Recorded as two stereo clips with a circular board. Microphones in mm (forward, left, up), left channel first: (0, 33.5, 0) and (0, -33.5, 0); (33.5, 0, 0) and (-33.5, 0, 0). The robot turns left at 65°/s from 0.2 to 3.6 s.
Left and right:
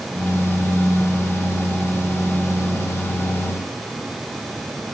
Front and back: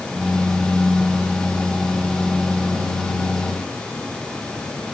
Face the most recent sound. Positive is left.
No sound to turn to.